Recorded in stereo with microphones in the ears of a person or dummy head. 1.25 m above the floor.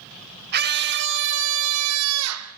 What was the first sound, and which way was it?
A scream, 50° right (ahead or behind).